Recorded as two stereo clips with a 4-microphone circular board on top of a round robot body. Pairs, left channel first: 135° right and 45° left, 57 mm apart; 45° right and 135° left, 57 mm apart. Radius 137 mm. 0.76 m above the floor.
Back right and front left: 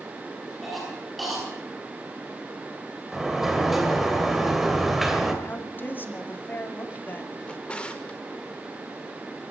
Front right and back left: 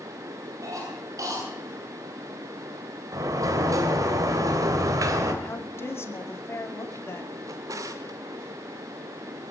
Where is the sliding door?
130° left, 2.5 m.